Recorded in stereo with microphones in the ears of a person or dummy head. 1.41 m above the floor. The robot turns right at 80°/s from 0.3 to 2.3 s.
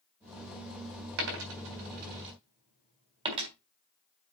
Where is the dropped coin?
60° right (ahead or behind), 3.5 m; by 3.5 s 25° right (ahead or behind), 3.5 m.